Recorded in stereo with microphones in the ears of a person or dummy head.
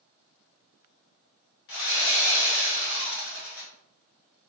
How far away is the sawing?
About 1.2 m.